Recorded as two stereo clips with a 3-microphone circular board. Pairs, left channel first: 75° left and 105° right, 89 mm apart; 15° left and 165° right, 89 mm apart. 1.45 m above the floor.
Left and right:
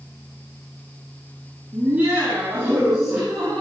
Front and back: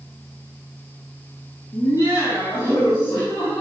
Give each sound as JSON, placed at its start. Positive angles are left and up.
{"t": 1.7, "sound": "laughter", "azimuth_deg": -40, "distance_m": 3.5}